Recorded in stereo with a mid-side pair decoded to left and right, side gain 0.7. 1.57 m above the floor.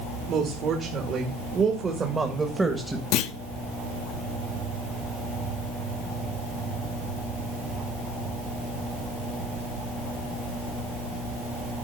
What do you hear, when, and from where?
0.3 s a woman speaking: 50° right, 2.5 m; by 3.0 s 5° right, 1.4 m
3.1 s a clunk: 60° left, 0.8 m